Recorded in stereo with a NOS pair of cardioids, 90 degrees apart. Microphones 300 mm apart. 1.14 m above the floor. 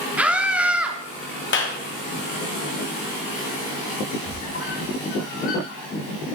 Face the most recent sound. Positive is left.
turn(degrees=45)